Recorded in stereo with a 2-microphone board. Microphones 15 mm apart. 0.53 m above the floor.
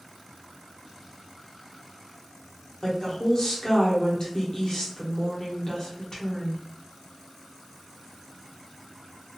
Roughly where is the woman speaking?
Left.